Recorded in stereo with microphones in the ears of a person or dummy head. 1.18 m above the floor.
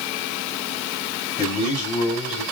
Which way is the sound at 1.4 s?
25° left (ahead or behind).